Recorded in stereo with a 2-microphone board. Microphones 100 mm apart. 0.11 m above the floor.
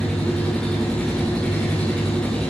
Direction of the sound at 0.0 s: 10° left (ahead or behind).